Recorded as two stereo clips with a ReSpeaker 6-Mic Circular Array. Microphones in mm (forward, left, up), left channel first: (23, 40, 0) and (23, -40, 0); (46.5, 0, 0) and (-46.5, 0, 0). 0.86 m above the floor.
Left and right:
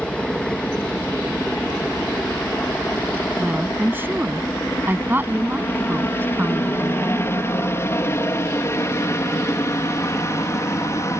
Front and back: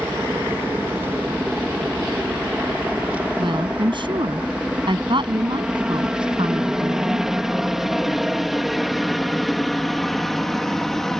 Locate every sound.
0.0 s a helicopter: 150° left; by 11.2 s 85° left
3.4 s a woman speaking: 155° right